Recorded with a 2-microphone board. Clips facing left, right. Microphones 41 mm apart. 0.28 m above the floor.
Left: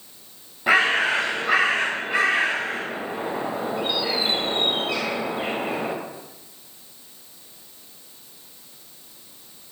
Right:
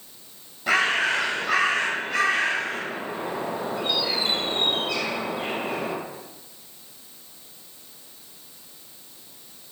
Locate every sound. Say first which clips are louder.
0.7 s a bird: left 3 dB; 20° left (ahead or behind), 0.6 m